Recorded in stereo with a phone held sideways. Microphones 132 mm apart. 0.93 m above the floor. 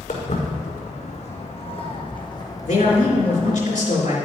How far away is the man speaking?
About 3 m.